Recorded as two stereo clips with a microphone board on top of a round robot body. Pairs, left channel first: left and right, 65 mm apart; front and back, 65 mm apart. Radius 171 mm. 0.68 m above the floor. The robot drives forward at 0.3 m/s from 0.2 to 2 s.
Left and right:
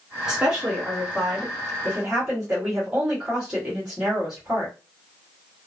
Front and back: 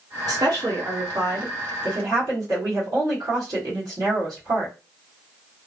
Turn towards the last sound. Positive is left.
turn(degrees=-175)